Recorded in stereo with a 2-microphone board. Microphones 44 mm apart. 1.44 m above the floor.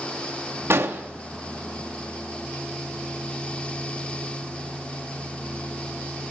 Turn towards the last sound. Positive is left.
turn(degrees=-70)  # may be behind; listen again after turning